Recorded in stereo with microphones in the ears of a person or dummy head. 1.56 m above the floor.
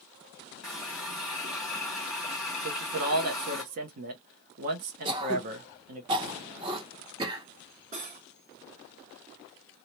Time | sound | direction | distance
0.6 | a running tap | centre (ahead or behind) | 1.6 m
2.6 | a man speaking | 40° right (ahead or behind) | 0.6 m
5.0 | throat clearing | 30° right (ahead or behind) | 0.7 m
7.9 | cutlery clinking | 40° right (ahead or behind) | 2 m